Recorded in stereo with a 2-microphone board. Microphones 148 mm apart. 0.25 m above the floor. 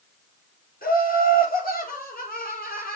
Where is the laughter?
80° left, 7 m.